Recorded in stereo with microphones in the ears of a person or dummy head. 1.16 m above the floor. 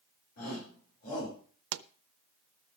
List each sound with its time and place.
0.4 s a shout: 55° left (ahead or behind), 7.5 m; by 1.4 s 45° left (ahead or behind), 8.5 m
1.7 s a pop: 85° right, 0.7 m